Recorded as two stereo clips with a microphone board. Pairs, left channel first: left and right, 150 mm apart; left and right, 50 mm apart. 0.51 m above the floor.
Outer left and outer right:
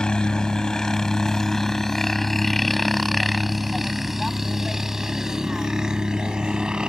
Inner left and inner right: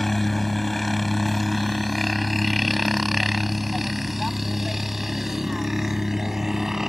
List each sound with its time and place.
0.0 s a helicopter: 5° left (ahead or behind); by 6.9 s 5° right (ahead or behind)